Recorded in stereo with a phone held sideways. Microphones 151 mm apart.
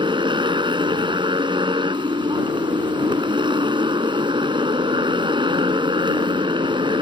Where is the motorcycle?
35° right (ahead or behind).